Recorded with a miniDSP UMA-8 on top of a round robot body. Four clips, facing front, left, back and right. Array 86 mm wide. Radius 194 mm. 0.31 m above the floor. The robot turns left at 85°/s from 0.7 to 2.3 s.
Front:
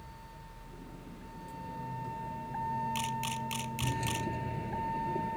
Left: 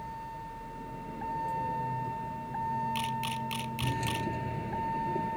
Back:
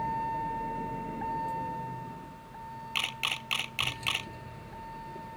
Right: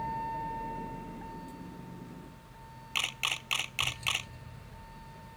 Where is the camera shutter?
140° right.